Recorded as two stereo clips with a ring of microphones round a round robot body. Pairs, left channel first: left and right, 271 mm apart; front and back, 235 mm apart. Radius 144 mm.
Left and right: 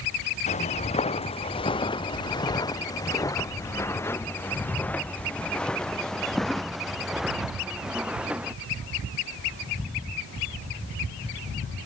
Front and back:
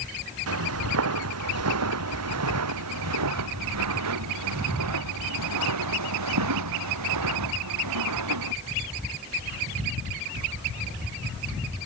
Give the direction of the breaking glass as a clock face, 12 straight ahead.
I don't hear breaking glass.